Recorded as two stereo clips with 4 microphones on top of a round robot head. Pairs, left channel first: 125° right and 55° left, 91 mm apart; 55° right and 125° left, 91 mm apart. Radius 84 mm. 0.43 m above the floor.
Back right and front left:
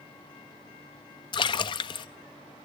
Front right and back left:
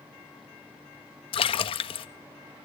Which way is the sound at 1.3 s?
85° right.